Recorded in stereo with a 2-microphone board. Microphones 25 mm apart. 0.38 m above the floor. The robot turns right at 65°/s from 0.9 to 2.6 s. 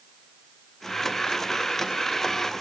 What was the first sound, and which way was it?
Only background noise.